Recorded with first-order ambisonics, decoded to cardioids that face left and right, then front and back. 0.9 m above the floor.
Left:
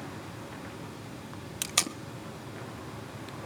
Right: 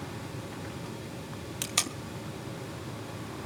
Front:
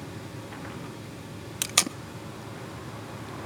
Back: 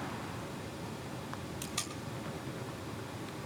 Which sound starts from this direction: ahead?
Tape being pulled, at 1.6 s.